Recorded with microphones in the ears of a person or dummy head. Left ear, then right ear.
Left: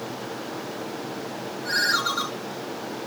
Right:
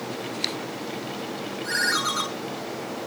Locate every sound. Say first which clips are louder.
1.6 s a ringtone: left 1 dB; 55° right (ahead or behind), 4 m